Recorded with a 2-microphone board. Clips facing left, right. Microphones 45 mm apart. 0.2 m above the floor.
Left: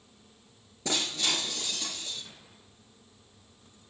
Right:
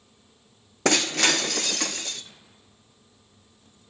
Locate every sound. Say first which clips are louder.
0.8 s breaking glass: right 9 dB; 75° right (ahead or behind), 1.5 m